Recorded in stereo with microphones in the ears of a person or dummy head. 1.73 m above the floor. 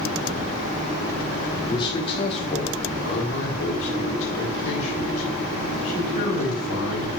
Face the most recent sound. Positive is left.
turn(degrees=40)  # may be behind; listen again after turning